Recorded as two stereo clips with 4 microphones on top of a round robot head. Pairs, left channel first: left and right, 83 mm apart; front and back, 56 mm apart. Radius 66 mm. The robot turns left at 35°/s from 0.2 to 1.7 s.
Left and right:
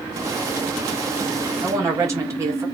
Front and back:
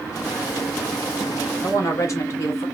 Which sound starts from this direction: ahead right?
A woman speaking, at 1.6 s.